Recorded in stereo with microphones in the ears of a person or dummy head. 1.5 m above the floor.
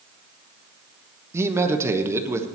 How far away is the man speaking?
About 1.0 m.